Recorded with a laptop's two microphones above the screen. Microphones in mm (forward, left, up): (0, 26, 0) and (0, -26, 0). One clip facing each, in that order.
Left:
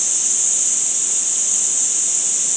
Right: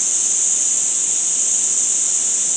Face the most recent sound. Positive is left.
No sound to turn to.